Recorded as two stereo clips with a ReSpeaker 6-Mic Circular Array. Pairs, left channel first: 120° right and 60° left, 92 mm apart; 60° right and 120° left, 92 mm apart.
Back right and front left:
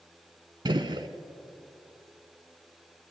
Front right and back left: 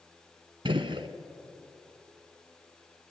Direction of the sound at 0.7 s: 95° left.